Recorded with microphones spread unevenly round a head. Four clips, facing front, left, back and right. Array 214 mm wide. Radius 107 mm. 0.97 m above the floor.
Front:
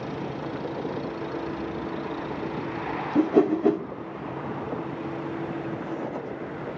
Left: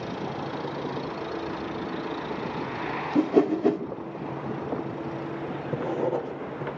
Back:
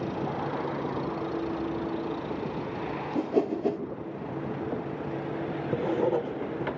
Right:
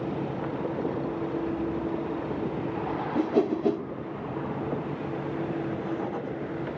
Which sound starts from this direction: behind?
Writing, at 5.7 s.